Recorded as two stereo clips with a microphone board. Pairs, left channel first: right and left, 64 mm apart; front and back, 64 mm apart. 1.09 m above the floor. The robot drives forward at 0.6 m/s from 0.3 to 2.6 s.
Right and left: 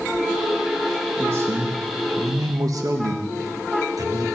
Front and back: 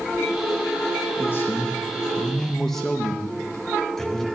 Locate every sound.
1.2 s a man speaking: 45° left, 1.5 m; by 4.3 s 80° left, 1.1 m